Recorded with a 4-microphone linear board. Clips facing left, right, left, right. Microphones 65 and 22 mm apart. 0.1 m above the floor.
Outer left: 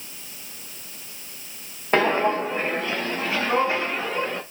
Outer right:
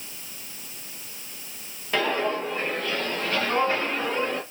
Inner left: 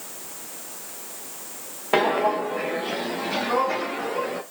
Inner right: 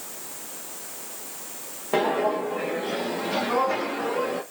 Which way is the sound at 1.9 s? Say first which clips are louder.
Outer left 5 dB, inner left 2 dB; 40° left (ahead or behind).